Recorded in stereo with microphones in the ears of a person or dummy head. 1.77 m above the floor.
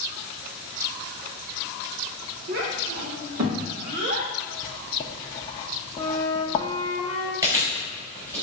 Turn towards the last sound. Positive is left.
turn(degrees=-20)  # may be behind; listen again after turning